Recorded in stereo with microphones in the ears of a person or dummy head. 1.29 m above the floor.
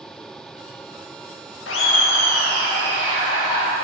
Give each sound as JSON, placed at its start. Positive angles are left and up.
{"t": 1.7, "sound": "laughter", "side_deg": 75, "distance_m": 0.9}